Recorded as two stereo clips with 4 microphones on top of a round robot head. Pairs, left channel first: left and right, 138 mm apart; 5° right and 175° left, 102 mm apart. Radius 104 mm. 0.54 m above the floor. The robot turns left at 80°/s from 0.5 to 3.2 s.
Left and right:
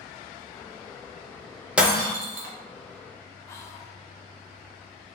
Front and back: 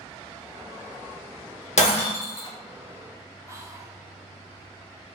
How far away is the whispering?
About 0.7 m.